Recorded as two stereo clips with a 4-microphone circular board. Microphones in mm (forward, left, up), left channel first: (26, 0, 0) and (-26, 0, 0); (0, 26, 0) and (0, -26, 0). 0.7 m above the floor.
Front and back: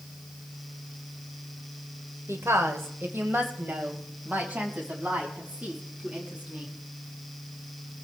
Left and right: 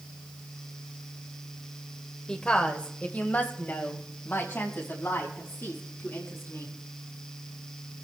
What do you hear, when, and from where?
2.3 s a woman speaking: 165° left, 2.5 m; by 6.7 s 115° left, 6.5 m